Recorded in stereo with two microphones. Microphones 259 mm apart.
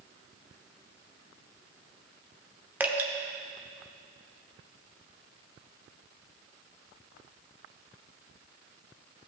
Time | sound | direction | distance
2.8 | dripping | 5° right (ahead or behind) | 0.9 m